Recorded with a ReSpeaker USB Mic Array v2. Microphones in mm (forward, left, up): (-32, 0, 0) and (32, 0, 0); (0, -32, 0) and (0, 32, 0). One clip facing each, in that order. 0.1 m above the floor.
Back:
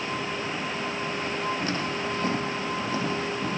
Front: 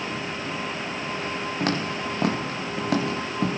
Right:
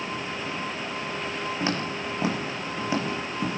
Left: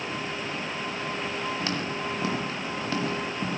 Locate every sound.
1.6 s footsteps: 25° right, 7.5 m; by 3.5 s 10° right, 7 m